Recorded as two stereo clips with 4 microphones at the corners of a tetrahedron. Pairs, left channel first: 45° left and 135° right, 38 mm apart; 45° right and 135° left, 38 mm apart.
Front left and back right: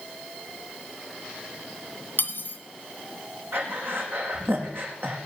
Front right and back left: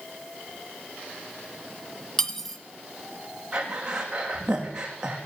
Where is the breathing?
155° right, 3.5 m.